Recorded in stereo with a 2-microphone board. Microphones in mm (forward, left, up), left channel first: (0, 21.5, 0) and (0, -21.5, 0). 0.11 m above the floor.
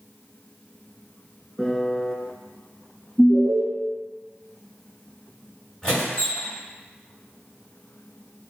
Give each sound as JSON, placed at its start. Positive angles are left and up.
{"t": 1.6, "sound": "a piano", "side_deg": 10, "distance_m": 0.5}
{"t": 3.2, "sound": "an alarm", "side_deg": 40, "distance_m": 1.5}
{"t": 5.8, "sound": "a squeak", "side_deg": 15, "distance_m": 1.7}